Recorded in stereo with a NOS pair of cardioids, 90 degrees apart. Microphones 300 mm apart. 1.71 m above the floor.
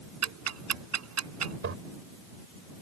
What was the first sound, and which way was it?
Ticking, 55° right.